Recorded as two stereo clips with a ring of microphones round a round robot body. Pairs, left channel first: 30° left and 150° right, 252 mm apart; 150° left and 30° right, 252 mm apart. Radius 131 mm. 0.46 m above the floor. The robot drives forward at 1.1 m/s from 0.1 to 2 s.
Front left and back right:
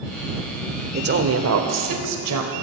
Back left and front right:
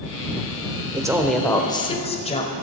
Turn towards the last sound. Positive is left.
turn(degrees=-145)